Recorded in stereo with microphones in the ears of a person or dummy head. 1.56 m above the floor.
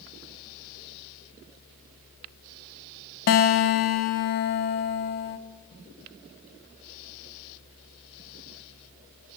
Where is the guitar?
55° left (ahead or behind), 1.4 m.